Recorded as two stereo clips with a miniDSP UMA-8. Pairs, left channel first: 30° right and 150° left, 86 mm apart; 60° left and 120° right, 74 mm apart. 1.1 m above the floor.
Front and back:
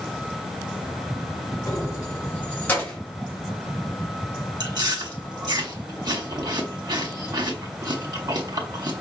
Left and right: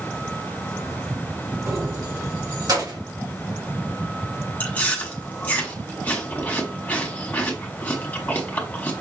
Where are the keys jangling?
75° right, 1.0 m; by 3.0 s 105° right, 1.9 m.